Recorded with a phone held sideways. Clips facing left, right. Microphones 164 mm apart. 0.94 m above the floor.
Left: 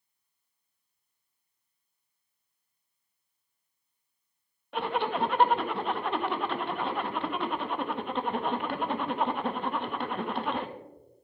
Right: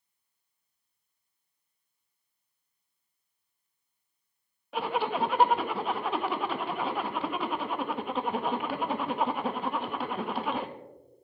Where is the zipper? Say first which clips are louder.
Even; 5° right (ahead or behind), 0.8 m.